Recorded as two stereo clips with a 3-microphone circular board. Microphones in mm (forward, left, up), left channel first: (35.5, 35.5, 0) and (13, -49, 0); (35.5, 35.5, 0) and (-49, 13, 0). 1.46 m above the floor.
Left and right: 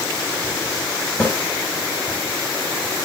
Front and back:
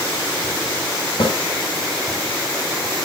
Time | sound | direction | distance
1.2 | a snare drum | 5° left | 7 m